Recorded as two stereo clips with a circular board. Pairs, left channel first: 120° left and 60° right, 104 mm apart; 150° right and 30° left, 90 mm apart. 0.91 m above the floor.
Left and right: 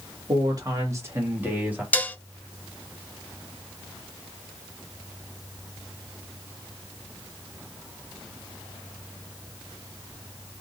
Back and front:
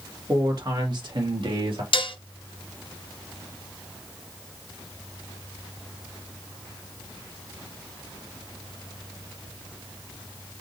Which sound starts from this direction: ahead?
A man speaking, at 0.3 s.